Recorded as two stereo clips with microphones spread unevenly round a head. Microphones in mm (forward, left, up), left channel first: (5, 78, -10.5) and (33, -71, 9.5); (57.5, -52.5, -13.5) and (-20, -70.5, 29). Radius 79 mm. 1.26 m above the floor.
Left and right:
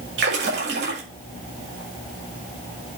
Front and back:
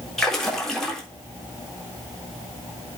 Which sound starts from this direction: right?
A splash, at 0.2 s.